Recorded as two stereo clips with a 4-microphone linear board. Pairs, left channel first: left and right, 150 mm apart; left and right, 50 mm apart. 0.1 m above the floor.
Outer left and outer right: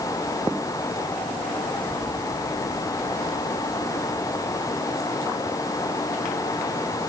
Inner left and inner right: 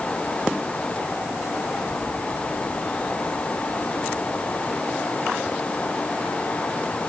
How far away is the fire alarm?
I don't hear a fire alarm.